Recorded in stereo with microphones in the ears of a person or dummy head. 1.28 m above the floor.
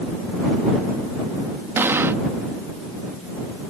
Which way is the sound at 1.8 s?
15° right (ahead or behind).